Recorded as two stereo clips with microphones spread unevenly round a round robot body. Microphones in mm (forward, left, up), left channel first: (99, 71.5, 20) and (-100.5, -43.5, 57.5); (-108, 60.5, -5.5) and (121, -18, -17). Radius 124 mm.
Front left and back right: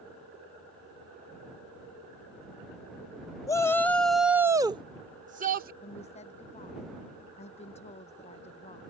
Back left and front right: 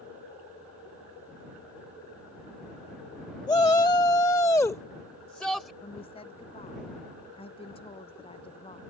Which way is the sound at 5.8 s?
95° left.